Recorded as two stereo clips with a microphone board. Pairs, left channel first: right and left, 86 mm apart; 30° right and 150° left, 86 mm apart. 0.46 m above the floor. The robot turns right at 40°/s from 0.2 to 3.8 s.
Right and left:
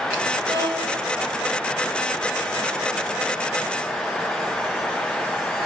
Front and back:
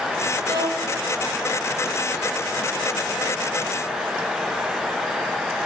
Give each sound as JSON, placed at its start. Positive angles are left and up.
{"t": 0.5, "sound": "a violin", "azimuth_deg": 120, "distance_m": 8.0}